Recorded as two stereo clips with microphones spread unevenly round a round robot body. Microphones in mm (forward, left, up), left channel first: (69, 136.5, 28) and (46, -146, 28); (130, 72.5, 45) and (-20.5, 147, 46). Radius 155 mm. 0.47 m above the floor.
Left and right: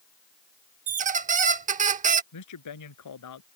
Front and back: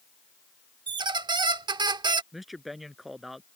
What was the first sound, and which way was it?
A squeak, 150° right.